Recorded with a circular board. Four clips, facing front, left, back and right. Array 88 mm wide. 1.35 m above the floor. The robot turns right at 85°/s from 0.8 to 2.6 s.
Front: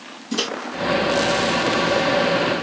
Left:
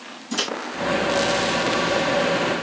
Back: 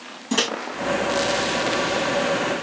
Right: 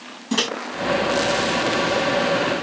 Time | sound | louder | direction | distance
0.3 | a microwave | right 4 dB, back 2 dB | 140° right | 1.5 m